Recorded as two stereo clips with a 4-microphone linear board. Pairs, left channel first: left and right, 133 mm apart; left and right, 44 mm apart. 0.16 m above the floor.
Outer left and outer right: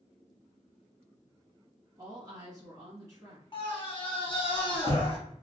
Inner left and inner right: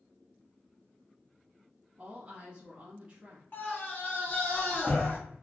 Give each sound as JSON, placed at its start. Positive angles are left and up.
{"t": 2.0, "sound": "a woman speaking", "side_deg": -25, "distance_m": 1.1}
{"t": 3.5, "sound": "a scream", "side_deg": 40, "distance_m": 1.3}